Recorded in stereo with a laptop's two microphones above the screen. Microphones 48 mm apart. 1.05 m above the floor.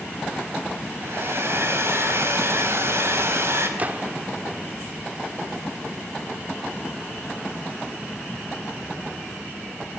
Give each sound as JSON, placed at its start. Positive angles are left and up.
{"t": 1.0, "sound": "a hair dryer", "side_deg": -55, "distance_m": 5.5}
{"t": 3.8, "sound": "a gunshot", "side_deg": -35, "distance_m": 1.6}